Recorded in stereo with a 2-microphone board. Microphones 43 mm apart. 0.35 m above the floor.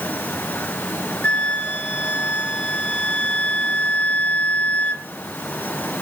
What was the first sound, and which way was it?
A flute, 35° left (ahead or behind).